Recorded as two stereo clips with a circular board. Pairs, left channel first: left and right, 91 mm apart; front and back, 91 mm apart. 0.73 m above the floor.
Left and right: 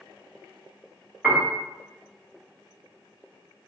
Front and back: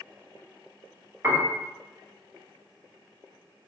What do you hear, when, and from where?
1.2 s a piano: 150° right, 1.0 m